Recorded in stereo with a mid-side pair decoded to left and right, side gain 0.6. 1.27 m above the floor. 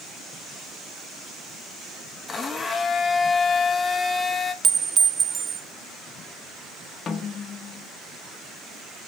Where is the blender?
25° left, 1.1 m.